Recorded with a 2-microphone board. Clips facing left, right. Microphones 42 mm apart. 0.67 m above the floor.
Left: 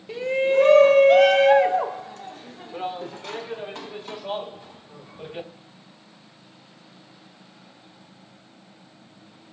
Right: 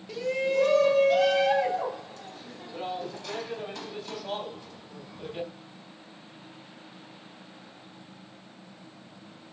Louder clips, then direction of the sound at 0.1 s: Left 6 dB; 30° left (ahead or behind).